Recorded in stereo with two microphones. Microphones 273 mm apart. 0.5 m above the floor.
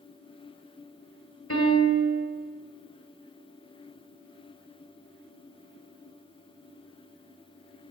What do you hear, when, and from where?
1.5 s a piano: 65° left (ahead or behind), 2.5 m